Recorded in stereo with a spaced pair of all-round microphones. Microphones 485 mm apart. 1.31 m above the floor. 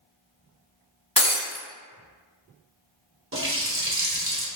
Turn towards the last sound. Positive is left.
turn(degrees=-25)  # may be behind; listen again after turning